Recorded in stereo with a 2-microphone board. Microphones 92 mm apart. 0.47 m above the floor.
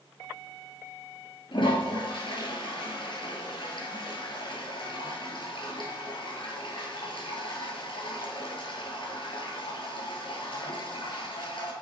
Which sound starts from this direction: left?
A toilet flushing, at 1.5 s.